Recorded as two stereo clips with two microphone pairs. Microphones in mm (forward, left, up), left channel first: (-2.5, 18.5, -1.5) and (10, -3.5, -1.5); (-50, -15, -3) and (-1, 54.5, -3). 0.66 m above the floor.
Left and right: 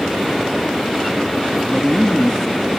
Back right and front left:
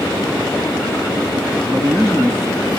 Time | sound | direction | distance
1.6 | a man speaking | 55° left | 1.1 m